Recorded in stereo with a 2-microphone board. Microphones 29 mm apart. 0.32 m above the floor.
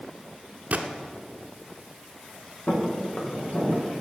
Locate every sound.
0.7 s a gunshot: 55° right (ahead or behind), 1.0 m
2.7 s footsteps: 45° left (ahead or behind), 3 m; by 3.9 s 50° left (ahead or behind), 4.5 m